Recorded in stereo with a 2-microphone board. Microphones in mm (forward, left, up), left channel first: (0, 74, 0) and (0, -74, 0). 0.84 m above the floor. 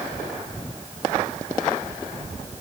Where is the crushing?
I don't hear crushing.